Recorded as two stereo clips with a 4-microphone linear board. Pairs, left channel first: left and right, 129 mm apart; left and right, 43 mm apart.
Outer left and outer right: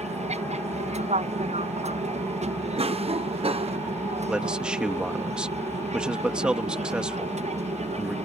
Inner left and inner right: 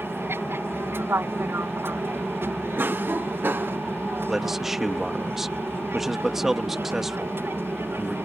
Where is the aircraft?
60° right (ahead or behind).